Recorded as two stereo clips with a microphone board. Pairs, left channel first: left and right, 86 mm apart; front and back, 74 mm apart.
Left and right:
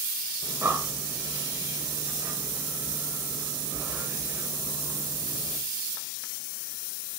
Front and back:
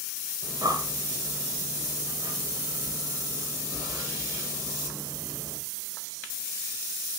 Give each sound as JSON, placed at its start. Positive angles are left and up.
{"t": 0.4, "sound": "breathing", "azimuth_deg": -155, "distance_m": 3.0}